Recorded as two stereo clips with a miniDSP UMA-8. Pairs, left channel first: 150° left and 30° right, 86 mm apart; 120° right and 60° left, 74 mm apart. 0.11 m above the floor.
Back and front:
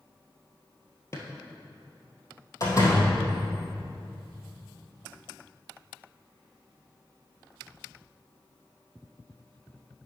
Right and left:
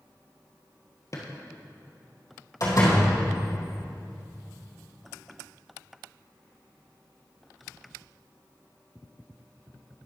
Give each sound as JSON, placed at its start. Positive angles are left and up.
{"t": 1.1, "sound": "a drawer", "azimuth_deg": -155, "distance_m": 1.6}
{"t": 2.6, "sound": "a door slam", "azimuth_deg": -160, "distance_m": 3.0}